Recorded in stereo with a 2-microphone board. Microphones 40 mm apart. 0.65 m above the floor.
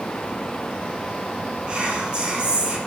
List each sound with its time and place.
1.7 s whispering: 30° right (ahead or behind), 0.6 m